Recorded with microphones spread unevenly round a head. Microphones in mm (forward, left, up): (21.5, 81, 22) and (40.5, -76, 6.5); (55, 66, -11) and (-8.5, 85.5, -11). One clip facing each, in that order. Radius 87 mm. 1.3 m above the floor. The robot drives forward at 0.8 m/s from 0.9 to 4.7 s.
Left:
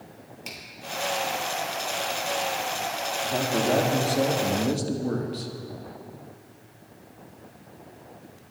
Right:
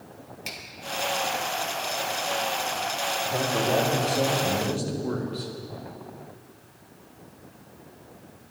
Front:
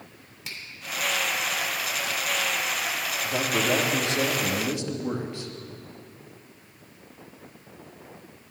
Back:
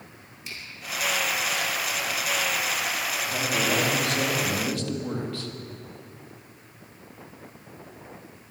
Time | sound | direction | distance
0.5 | a finger snap | straight ahead | 3 m
3.2 | a man speaking | 40° left | 3.5 m